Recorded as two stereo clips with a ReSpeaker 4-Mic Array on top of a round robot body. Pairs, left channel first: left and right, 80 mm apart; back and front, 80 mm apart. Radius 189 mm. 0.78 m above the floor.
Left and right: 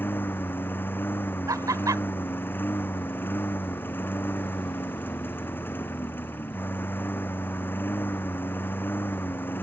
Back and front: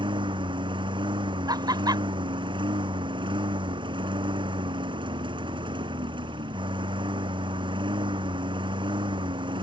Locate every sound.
0.0 s a lawn mower: 25° left
1.5 s laughter: 40° right